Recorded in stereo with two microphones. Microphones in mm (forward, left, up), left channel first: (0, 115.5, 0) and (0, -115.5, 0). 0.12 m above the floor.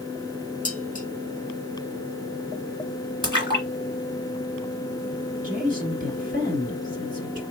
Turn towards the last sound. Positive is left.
turn(degrees=-35)  # may be behind; listen again after turning